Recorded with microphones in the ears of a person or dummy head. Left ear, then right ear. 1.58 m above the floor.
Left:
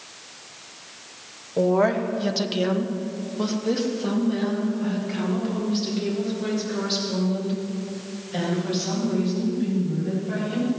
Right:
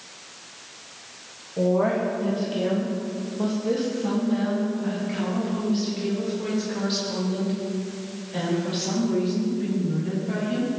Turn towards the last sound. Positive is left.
turn(degrees=5)  # may be behind; listen again after turning